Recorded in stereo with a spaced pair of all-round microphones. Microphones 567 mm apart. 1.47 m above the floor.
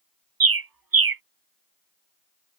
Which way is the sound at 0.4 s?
40° right (ahead or behind).